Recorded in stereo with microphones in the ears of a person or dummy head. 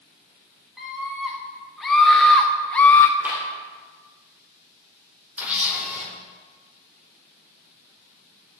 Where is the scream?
5° right (ahead or behind), 2.5 m; by 3.1 s 15° left (ahead or behind), 0.7 m.